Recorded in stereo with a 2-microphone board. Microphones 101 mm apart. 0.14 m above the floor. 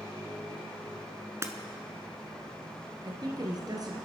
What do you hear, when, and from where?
1.4 s breaking glass: 30° right (ahead or behind), 1.1 m
3.0 s a woman speaking: 45° right (ahead or behind), 1.9 m